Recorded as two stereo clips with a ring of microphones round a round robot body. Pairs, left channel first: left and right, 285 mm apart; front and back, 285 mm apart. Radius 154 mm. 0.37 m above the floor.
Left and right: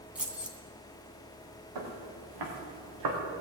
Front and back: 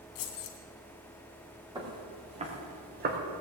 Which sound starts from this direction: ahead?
Keys jangling, at 0.1 s.